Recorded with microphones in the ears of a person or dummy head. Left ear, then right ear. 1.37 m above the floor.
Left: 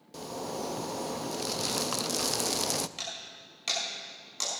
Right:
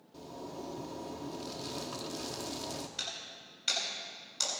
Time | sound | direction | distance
0.1 | a zipper | 70° left (ahead or behind) | 0.5 m
3.0 | breaking glass | 40° left (ahead or behind) | 6 m